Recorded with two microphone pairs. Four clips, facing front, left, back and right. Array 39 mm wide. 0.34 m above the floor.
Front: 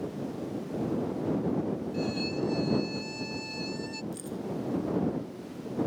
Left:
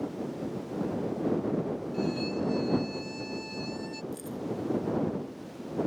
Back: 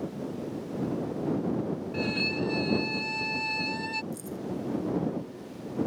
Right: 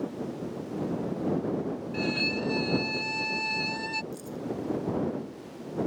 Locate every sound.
1.9 s a violin: 130° right
4.1 s keys jangling: 20° left